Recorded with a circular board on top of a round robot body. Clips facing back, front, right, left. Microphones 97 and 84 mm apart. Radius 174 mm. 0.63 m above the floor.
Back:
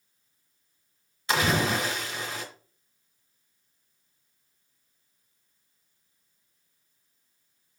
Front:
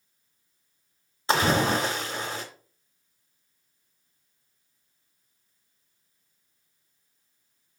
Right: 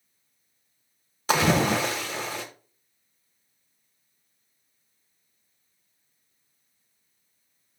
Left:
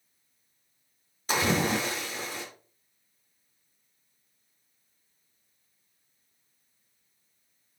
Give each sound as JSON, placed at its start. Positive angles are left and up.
{"t": 1.3, "sound": "a splash", "azimuth_deg": -60, "distance_m": 1.0}